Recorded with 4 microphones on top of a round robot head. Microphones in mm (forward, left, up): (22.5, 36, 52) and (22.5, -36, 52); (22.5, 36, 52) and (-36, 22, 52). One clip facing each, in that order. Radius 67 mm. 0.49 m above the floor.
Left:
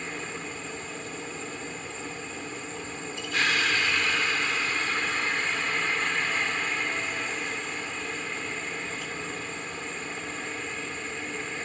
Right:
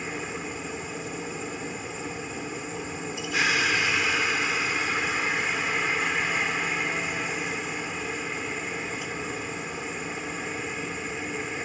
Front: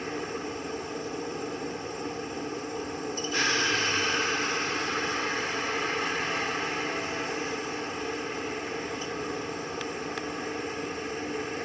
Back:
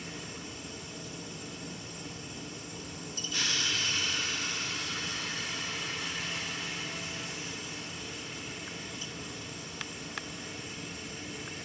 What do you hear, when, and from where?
0.0 s a helicopter: 10° right